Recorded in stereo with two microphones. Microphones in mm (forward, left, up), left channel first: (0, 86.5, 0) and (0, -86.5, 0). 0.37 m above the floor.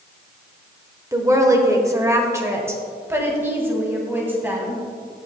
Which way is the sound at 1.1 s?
20° right (ahead or behind).